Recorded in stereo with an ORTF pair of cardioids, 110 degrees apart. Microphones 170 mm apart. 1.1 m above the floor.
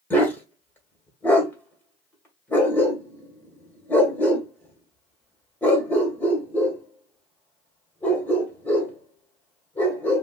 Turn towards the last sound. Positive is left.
turn(degrees=10)